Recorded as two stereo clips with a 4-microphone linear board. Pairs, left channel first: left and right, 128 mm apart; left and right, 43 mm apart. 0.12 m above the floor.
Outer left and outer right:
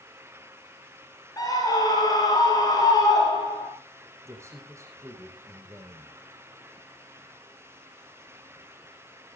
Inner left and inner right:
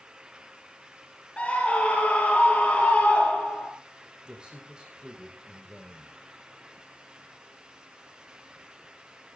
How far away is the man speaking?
About 4.5 m.